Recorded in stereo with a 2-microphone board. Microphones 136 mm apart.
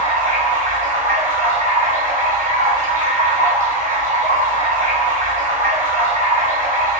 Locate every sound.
0.0 s running water: 75° right (ahead or behind), 1.9 m